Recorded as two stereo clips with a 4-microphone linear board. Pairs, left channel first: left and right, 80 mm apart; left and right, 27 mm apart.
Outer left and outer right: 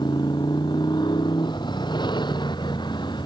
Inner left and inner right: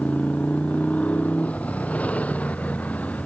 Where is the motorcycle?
65° left (ahead or behind); by 3.3 s 70° left (ahead or behind).